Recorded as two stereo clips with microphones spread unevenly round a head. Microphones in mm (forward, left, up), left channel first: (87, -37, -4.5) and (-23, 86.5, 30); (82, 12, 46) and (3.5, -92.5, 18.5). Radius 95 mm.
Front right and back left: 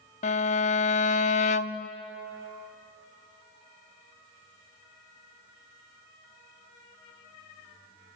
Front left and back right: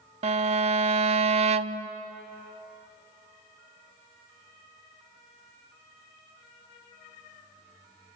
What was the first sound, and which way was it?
A violin, 100° right.